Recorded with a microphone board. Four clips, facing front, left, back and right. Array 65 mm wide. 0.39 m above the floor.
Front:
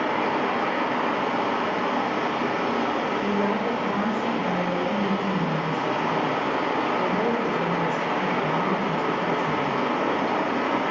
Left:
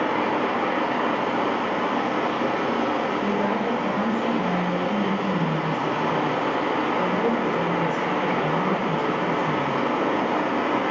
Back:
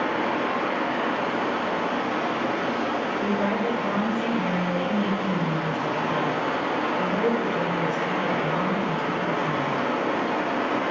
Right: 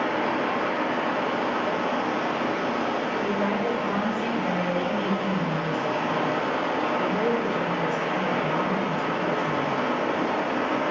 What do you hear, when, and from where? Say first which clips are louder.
0.0 s running water: left 2 dB, front 1 dB; 50° left, 0.8 m
3.2 s a woman speaking: left 2 dB, even; 150° right, 1.0 m